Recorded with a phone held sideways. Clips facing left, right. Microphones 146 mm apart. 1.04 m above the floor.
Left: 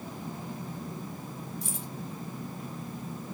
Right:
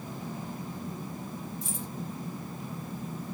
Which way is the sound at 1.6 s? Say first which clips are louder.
Right 1 dB; 75° left (ahead or behind).